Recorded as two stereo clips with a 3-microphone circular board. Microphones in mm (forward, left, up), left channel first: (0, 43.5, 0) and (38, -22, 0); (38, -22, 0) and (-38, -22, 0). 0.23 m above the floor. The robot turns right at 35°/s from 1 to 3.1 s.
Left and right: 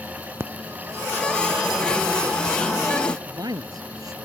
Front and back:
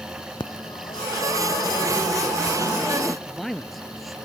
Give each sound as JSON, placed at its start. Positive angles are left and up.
{"t": 0.4, "sound": "a phone ringing", "azimuth_deg": -5}
{"t": 3.3, "sound": "a man speaking", "azimuth_deg": -90}